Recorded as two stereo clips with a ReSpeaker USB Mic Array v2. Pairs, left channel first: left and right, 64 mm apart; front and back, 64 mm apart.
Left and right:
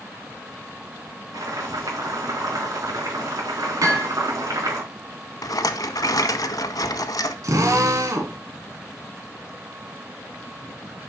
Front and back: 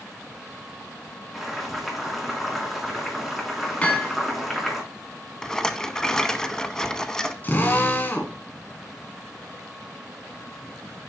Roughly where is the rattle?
Left.